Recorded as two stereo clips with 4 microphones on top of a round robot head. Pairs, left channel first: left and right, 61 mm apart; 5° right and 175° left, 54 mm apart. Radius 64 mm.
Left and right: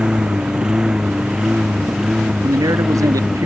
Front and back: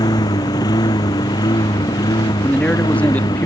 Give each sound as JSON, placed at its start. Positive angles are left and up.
{"t": 0.0, "sound": "a lawn mower", "azimuth_deg": -10}
{"t": 2.4, "sound": "a man speaking", "azimuth_deg": -70}